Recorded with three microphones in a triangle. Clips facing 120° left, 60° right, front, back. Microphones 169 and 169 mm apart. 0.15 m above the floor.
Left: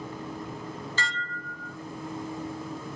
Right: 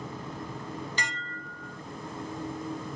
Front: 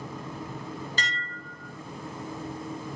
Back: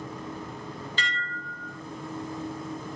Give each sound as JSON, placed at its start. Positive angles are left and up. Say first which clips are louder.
{"t": 1.0, "sound": "dishes clattering", "louder": "left 2 dB, back 1 dB", "azimuth_deg": 5, "distance_m": 1.3}